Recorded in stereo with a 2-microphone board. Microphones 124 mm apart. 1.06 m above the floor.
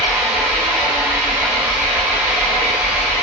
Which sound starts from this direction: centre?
An engine running, at 0.0 s.